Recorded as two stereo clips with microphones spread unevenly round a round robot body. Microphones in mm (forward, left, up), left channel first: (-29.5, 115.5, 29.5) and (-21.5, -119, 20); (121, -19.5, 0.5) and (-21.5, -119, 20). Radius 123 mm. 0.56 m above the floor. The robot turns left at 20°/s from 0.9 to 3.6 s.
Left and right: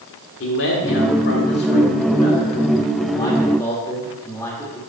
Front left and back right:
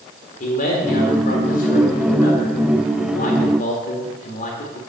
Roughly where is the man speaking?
Ahead left.